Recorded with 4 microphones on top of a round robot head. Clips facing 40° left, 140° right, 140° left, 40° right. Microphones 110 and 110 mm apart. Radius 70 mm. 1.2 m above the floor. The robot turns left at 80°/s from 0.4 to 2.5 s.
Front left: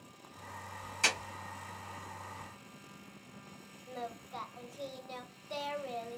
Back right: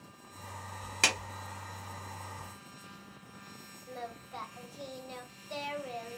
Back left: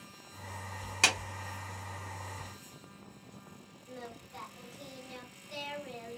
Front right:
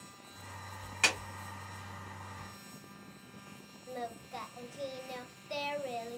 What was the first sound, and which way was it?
A clap, 160° right.